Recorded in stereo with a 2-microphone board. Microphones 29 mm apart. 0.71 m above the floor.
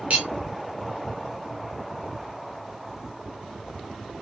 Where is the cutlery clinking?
55° right (ahead or behind), 1.0 m.